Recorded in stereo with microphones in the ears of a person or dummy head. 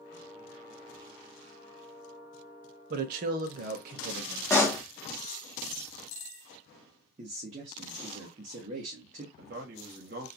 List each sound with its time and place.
2.9 s a man speaking: 45° right (ahead or behind), 0.7 m
4.5 s a pop: 15° left (ahead or behind), 0.7 m
7.2 s a man speaking: 35° right (ahead or behind), 0.7 m
9.4 s a man speaking: 50° right (ahead or behind), 1.0 m